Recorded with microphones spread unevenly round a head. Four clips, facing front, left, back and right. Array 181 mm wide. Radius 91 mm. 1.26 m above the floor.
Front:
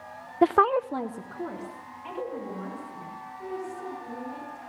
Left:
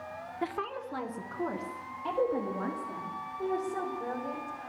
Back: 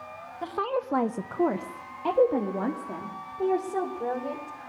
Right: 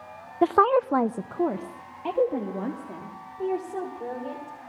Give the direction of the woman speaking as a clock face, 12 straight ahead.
1 o'clock.